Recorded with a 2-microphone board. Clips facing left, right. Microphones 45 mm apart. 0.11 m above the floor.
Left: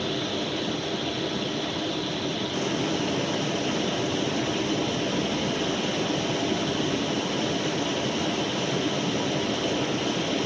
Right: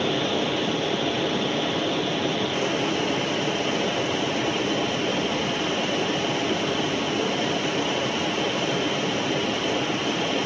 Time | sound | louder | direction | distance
0.0 | running water | right 5 dB | 45° right (ahead or behind) | 1.0 m